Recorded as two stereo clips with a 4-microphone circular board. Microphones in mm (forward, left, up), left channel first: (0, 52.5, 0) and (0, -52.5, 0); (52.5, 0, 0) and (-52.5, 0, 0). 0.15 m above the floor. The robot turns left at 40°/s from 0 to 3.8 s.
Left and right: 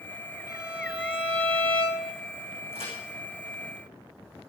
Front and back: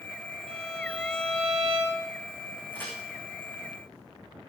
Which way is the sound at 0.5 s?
160° right.